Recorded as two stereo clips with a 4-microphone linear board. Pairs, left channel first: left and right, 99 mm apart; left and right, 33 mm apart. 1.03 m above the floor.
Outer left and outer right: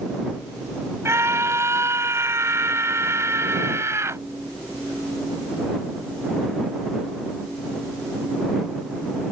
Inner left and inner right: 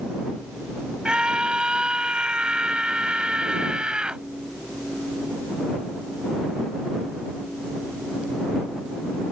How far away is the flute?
No flute in this recording.